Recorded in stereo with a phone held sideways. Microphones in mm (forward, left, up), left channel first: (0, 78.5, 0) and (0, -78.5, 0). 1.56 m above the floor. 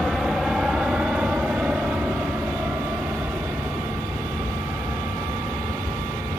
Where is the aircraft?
Centre (ahead or behind); by 6.4 s 15° right (ahead or behind).